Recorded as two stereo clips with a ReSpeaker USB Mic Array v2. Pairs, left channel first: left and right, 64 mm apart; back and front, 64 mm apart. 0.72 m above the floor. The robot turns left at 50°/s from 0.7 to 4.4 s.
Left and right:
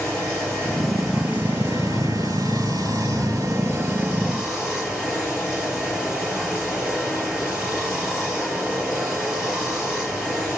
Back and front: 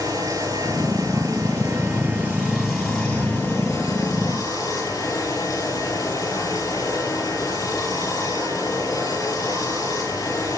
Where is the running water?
15° left, 6 m; by 10.6 s 170° right, 6 m.